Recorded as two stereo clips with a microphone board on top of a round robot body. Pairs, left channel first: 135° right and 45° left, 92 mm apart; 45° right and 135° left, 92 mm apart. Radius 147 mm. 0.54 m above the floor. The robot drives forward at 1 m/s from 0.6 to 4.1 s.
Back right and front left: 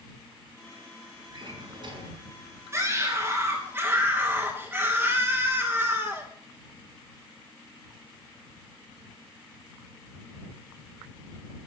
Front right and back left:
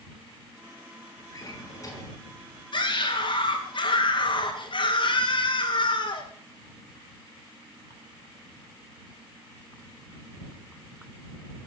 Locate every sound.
1.3 s a drawer: 10° left, 5 m
2.7 s a scream: 15° right, 3.5 m; by 6.3 s 30° right, 2 m